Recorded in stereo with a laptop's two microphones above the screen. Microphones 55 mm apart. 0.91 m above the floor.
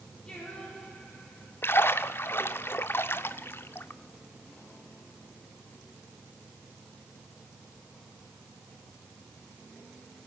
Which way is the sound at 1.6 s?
40° left (ahead or behind).